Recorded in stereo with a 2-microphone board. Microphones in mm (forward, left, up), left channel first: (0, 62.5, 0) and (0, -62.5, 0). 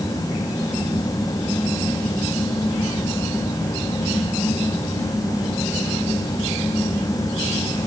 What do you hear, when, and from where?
Only background noise.